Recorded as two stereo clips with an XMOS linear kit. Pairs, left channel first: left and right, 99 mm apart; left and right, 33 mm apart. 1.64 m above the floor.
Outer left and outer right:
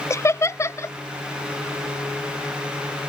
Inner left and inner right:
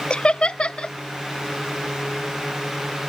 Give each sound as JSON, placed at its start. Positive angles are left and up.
{"t": 0.1, "sound": "laughter", "side_deg": 30}